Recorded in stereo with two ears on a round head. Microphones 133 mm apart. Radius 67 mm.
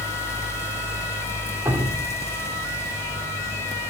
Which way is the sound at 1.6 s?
15° right (ahead or behind).